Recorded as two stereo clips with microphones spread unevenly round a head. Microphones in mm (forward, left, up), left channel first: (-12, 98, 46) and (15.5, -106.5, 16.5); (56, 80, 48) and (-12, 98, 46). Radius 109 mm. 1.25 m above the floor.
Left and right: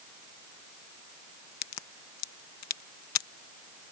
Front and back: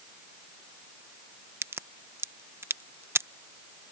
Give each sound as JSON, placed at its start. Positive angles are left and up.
{"t": 1.6, "sound": "a crack", "azimuth_deg": 110}